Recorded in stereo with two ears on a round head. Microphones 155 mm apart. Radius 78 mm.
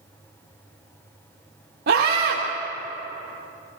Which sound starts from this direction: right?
A scream, at 1.9 s.